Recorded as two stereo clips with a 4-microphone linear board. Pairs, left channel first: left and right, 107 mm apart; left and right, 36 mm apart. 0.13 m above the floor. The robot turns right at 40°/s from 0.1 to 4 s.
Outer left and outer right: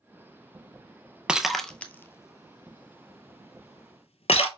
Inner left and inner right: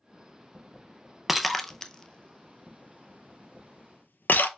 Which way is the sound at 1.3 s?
10° right (ahead or behind).